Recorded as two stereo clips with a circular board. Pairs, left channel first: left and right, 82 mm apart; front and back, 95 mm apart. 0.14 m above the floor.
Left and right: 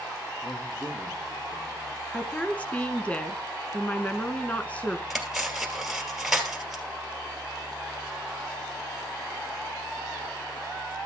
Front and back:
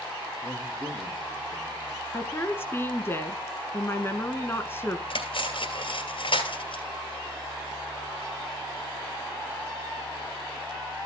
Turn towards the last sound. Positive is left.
turn(degrees=-5)